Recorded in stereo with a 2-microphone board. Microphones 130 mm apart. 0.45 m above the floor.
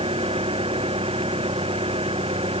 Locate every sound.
0.0 s an engine running: 50° right (ahead or behind)